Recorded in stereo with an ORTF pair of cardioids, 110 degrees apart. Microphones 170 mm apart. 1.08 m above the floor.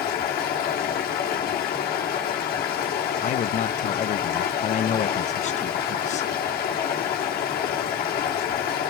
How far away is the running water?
About 2.5 m.